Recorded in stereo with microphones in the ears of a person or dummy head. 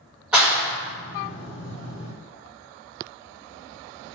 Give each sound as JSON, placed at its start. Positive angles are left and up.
{"t": 0.3, "sound": "a clap", "side_deg": -5, "distance_m": 1.6}